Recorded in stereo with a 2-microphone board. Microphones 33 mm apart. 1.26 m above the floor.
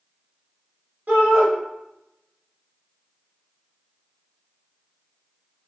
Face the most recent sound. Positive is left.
turn(degrees=-55)  # may be behind; listen again after turning